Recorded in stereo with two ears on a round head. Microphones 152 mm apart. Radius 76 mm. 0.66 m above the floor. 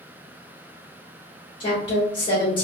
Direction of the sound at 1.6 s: 30° left (ahead or behind).